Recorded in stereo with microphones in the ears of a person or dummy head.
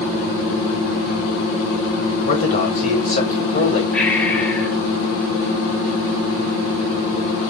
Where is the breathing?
10° left (ahead or behind), 5.5 m.